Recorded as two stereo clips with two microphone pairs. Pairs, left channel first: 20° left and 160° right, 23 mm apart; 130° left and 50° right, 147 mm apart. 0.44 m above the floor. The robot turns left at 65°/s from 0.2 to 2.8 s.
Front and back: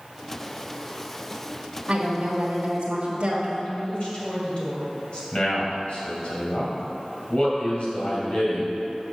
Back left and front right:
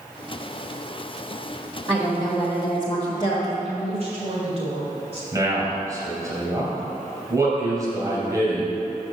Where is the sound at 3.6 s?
15° right, 2.5 m.